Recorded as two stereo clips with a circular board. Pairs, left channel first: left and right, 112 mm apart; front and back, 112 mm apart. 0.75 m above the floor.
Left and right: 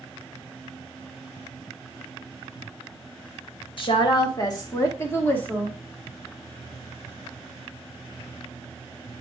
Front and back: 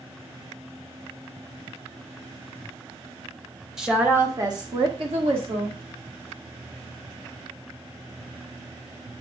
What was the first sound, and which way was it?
A woman speaking, 95° left.